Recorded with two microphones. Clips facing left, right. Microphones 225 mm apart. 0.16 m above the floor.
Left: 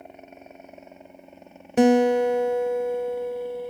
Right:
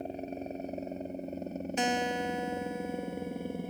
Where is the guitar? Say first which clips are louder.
Left 16 dB; 65° left (ahead or behind).